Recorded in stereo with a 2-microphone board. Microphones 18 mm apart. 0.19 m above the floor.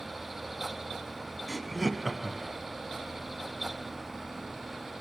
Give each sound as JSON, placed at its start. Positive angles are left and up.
{"t": 1.5, "sound": "laughter", "side_deg": -5, "distance_m": 1.2}